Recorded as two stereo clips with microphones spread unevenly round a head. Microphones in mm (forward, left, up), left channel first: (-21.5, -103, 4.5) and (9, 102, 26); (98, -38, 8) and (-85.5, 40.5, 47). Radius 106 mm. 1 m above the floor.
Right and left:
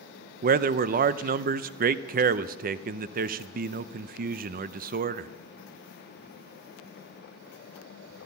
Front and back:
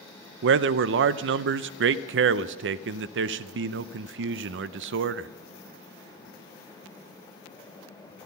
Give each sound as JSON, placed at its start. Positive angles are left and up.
{"t": 0.4, "sound": "a man speaking", "azimuth_deg": 130, "distance_m": 0.5}